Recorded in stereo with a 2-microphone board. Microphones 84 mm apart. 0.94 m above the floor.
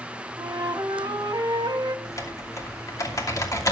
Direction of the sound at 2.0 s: 40° left (ahead or behind).